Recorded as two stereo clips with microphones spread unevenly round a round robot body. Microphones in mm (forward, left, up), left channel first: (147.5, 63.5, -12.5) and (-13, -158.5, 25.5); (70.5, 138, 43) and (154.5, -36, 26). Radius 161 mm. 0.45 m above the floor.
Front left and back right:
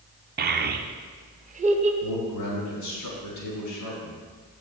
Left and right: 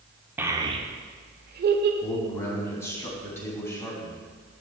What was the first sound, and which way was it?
A child speaking, 125° right.